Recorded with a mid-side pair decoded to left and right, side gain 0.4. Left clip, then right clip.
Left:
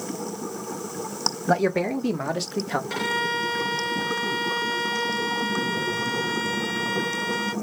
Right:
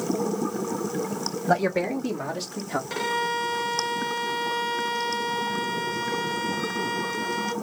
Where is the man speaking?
Straight ahead, 1.3 m; by 2.8 s 55° left, 1.8 m.